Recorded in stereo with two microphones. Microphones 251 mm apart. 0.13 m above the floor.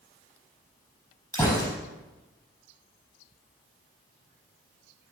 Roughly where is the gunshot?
Centre.